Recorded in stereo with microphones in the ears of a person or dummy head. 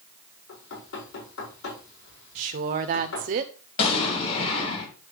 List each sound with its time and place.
0.5 s knocking: 80° left, 4.5 m
2.4 s a woman speaking: 40° right (ahead or behind), 0.6 m
3.8 s an explosion: 50° left (ahead or behind), 3.5 m